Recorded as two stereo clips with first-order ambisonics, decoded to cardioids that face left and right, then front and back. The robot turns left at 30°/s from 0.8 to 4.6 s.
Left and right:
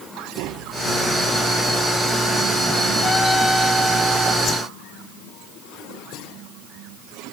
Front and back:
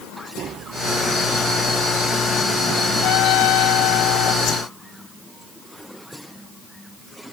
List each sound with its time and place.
0.4 s tapping: 125° right; by 2.9 s 175° left
3.0 s a trumpet: 15° left; by 4.3 s 25° right
4.4 s a whoosh: 35° left; by 4.6 s 30° left